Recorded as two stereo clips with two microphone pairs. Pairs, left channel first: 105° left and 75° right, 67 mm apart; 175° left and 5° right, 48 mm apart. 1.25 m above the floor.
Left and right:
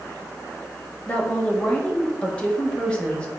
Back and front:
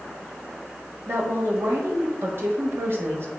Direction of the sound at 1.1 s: 30° left.